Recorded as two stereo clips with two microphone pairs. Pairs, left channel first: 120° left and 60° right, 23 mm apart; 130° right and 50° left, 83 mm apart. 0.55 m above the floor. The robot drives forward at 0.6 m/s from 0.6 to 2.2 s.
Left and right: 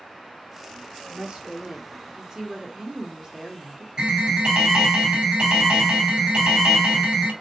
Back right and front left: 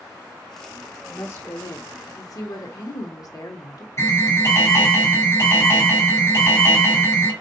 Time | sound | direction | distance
1.1 | a woman speaking | 80° right | 1.3 m
4.0 | an alarm | 90° right | 2 m